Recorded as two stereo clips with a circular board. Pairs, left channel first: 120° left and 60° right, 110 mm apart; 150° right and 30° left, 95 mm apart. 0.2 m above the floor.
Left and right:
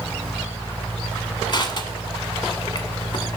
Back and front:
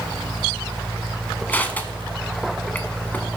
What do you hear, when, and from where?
1.5 s crushing: 145° left, 0.9 m